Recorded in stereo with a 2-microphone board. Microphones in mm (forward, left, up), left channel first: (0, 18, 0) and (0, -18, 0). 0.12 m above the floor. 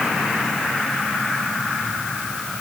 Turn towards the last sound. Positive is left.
No sound to turn to.